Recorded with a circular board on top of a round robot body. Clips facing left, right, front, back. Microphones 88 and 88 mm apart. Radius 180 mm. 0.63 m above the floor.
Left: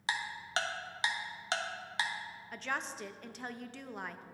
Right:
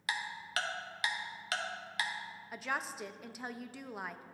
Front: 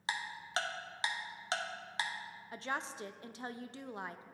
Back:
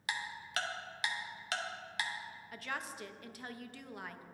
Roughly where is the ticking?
Ahead left.